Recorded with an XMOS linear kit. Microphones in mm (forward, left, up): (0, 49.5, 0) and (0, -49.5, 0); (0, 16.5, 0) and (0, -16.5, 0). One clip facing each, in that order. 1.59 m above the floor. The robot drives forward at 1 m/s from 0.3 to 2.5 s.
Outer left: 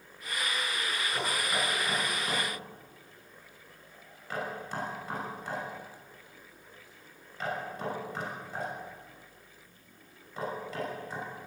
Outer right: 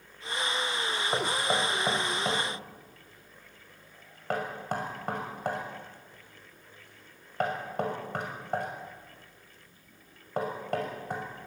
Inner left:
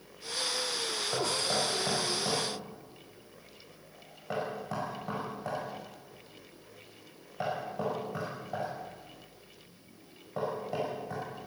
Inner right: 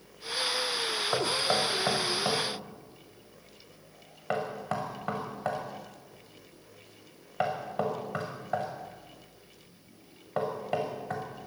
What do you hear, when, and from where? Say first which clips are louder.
1.1 s knocking: outer right 5 dB, inner right 3 dB; 70° right (ahead or behind), 5.5 m; by 11.2 s 60° right (ahead or behind), 6 m